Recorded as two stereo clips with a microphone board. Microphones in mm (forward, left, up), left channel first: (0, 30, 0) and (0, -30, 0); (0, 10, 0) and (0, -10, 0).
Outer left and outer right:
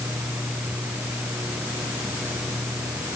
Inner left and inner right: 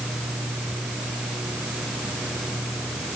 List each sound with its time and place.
Only background noise.